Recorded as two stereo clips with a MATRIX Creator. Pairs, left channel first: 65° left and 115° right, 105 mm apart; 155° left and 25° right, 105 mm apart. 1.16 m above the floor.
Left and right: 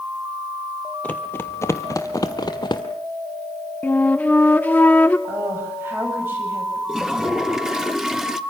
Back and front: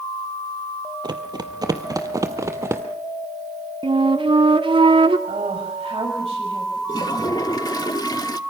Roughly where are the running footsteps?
Ahead.